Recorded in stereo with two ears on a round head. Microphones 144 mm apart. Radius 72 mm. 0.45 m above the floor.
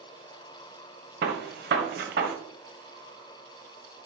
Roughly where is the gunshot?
Right.